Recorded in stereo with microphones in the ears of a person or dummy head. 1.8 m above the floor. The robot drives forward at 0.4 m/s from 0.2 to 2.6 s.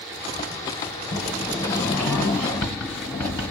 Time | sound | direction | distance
1.1 | a sliding door | 20° left (ahead or behind) | 1.2 m